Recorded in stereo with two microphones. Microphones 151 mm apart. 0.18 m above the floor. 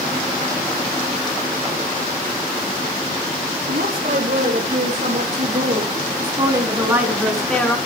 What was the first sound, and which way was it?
A woman speaking, 60° right (ahead or behind).